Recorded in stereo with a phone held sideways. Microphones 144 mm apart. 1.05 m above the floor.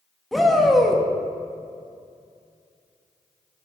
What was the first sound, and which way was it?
A shout, centre (ahead or behind).